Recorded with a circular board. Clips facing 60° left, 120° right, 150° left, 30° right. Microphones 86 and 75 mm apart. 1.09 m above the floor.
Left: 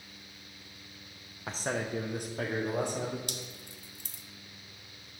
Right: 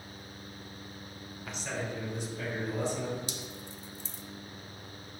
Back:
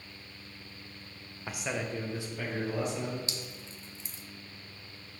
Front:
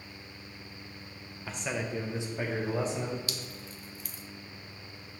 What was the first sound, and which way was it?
A man speaking, 90° left.